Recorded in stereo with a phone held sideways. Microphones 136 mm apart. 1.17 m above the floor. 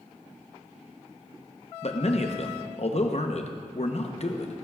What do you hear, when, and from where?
1.8 s a man speaking: 50° left (ahead or behind), 0.8 m